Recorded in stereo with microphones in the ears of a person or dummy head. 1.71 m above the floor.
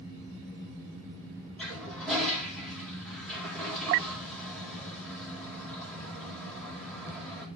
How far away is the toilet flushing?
About 4 m.